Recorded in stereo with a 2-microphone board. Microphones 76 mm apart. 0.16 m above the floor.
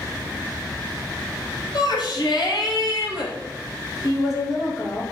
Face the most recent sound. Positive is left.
turn(degrees=50)  # may be behind; listen again after turning